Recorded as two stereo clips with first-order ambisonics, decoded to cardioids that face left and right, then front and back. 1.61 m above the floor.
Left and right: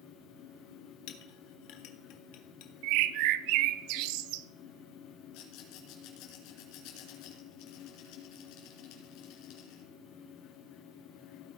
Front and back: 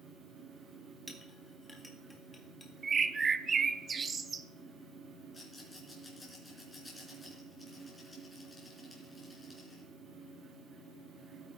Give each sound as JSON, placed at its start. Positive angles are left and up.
{"t": 1.1, "sound": "a clink", "azimuth_deg": 80, "distance_m": 1.7}
{"t": 2.8, "sound": "a bird", "azimuth_deg": -110, "distance_m": 0.6}
{"t": 5.3, "sound": "a rattle", "azimuth_deg": 80, "distance_m": 3.5}